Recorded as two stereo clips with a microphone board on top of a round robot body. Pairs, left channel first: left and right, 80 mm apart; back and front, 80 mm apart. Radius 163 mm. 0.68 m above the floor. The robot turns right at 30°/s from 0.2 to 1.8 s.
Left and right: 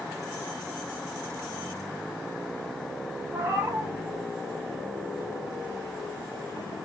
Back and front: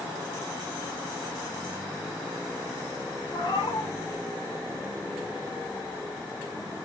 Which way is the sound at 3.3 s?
150° right.